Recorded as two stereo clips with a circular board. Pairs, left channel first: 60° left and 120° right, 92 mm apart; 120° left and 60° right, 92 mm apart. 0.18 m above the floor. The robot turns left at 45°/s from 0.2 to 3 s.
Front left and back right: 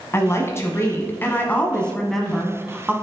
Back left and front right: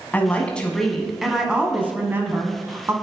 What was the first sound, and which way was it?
A woman speaking, 65° left.